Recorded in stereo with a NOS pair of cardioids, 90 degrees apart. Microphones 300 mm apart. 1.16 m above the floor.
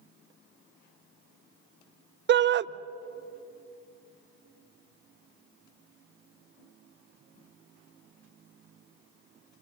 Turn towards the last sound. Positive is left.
turn(degrees=-40)